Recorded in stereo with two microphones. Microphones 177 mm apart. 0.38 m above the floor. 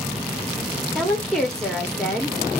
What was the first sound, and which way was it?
A woman speaking, 5° left (ahead or behind).